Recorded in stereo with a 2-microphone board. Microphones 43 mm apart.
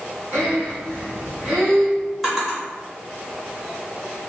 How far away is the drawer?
About 1.4 m.